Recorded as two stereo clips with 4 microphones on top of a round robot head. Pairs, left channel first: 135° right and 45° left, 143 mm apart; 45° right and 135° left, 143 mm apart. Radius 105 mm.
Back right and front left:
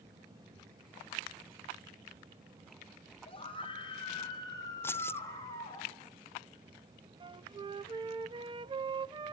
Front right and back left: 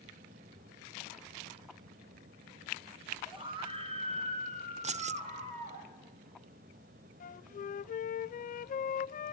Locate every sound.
3.3 s a scream: 175° right, 2 m; by 5.8 s 160° left, 3 m
4.8 s keys jangling: 155° left, 0.7 m
7.2 s a flute: 15° right, 0.5 m